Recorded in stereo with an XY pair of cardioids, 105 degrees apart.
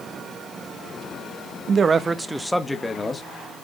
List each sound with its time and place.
1.7 s a man speaking: 55° right, 1.0 m; by 3.2 s 20° left, 1.7 m